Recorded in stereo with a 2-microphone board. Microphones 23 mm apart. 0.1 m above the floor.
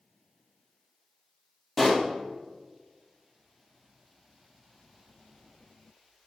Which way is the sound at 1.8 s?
5° left (ahead or behind).